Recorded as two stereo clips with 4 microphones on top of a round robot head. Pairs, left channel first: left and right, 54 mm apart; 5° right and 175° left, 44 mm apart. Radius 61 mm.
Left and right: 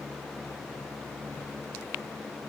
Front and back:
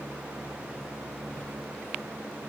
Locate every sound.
1.3 s keys jangling: 45° left, 2 m